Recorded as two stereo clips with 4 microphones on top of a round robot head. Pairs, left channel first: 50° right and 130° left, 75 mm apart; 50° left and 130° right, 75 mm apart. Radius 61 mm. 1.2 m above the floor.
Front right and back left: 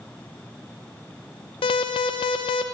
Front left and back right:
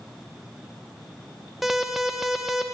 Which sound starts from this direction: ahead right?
An alarm, at 1.6 s.